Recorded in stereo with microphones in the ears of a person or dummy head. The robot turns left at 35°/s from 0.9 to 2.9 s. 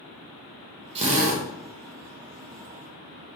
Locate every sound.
0.9 s a drill: 25° right (ahead or behind), 1.0 m; by 1.4 s 45° right (ahead or behind), 1.0 m